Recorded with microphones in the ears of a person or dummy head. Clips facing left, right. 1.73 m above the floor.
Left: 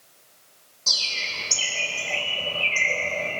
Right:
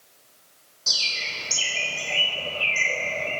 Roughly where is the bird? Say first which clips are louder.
Even; centre.